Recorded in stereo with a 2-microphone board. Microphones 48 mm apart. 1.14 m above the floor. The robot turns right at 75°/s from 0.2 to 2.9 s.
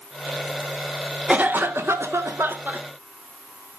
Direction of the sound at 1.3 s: 155° right.